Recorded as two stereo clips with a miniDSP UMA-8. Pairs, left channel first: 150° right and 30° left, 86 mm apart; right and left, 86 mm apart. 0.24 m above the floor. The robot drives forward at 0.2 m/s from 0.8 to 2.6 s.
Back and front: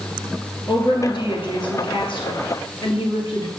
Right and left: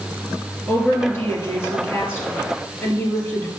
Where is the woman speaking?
150° right, 3.5 m.